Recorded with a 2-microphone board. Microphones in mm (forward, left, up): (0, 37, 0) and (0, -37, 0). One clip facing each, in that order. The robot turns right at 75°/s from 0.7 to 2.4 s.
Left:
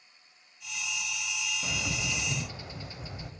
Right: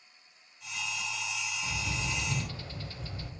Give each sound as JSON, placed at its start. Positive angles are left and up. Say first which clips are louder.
{"t": 1.6, "sound": "a bird", "louder": "left 1 dB", "azimuth_deg": 105, "distance_m": 0.5}